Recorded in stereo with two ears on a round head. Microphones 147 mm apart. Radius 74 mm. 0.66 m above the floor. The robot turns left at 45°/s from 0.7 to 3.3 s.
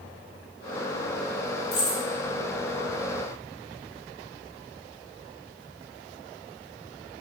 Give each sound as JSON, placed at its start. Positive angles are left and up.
{"t": 1.7, "sound": "keys jangling", "side_deg": 55, "distance_m": 0.9}